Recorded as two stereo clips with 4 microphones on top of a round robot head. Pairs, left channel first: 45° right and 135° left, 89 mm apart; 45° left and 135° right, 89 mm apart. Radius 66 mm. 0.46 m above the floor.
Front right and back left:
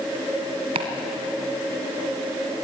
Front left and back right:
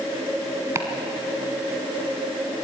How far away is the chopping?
About 1.9 m.